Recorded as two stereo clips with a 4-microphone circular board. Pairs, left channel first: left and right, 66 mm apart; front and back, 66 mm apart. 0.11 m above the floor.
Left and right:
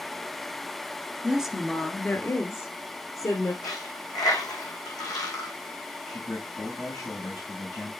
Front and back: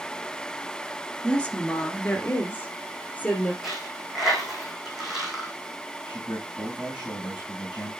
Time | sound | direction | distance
1.2 | a woman speaking | 50° right | 1.3 m
3.6 | a dropped coin | 95° left | 3 m
6.1 | a man speaking | 100° left | 5.5 m